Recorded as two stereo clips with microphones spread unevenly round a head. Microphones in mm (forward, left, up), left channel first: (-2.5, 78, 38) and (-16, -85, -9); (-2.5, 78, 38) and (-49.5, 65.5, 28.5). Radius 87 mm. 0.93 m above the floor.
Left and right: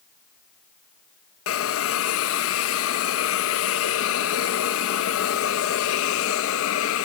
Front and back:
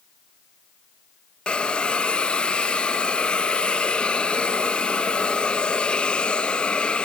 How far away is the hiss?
About 0.5 m.